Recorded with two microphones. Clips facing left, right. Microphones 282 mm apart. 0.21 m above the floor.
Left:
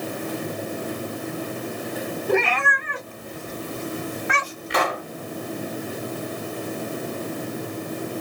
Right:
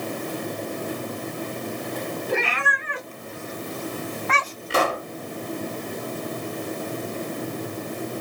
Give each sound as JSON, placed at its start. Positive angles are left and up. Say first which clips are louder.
{"t": 2.3, "sound": "a cat meowing", "louder": "left 8 dB", "side_deg": 65, "distance_m": 1.4}
{"t": 4.7, "sound": "a pop", "louder": "right 2 dB", "side_deg": -35, "distance_m": 0.9}